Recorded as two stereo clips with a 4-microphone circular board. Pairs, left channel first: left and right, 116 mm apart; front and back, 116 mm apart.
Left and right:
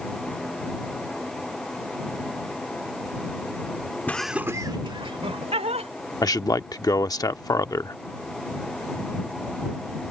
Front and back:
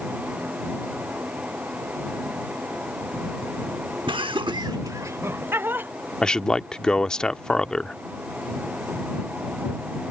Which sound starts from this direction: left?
A man speaking, at 6.2 s.